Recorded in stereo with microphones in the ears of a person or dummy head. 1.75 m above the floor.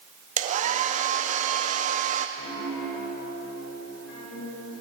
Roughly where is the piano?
Left.